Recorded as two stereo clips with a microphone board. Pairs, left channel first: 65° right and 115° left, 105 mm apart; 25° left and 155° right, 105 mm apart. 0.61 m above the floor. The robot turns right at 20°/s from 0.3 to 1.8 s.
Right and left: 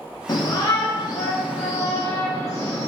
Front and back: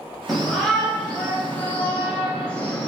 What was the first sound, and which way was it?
A shout, 70° right.